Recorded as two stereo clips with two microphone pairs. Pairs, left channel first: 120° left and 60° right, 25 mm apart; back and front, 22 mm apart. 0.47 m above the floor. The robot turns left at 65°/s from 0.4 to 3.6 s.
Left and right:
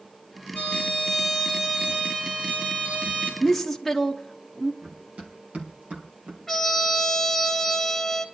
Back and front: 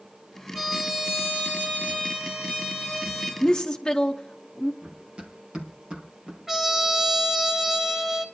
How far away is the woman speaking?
About 0.8 m.